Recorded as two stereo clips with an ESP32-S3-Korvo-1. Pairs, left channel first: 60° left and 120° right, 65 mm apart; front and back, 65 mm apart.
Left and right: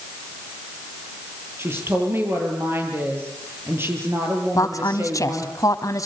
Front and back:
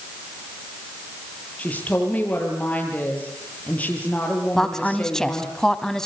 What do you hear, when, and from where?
1.6 s a woman speaking: 65° right, 7.5 m
4.5 s a woman speaking: 80° left, 2.0 m